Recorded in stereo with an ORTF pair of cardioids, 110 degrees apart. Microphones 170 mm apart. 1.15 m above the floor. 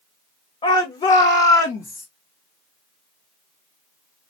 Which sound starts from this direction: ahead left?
A shout, at 0.6 s.